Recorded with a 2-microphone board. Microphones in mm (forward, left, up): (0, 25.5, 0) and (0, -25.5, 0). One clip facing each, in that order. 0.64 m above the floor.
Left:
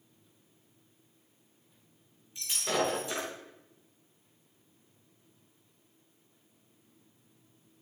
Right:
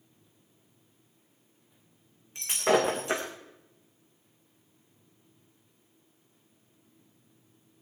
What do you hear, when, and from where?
2.4 s breaking glass: 65° right (ahead or behind), 4 m